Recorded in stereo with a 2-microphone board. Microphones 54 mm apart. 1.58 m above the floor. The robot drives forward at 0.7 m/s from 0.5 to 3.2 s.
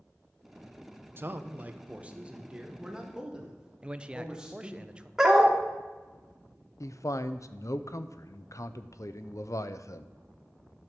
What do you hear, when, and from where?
1.2 s a man speaking: 40° right (ahead or behind), 0.7 m; by 4.8 s 15° right (ahead or behind), 1.8 m
3.8 s a man speaking: 20° right (ahead or behind), 0.5 m
5.2 s a dog barking: 10° right (ahead or behind), 1.2 m
6.8 s a man speaking: 65° left (ahead or behind), 0.6 m